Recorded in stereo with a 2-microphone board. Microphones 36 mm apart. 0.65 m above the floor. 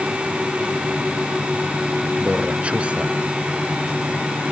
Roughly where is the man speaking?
Right.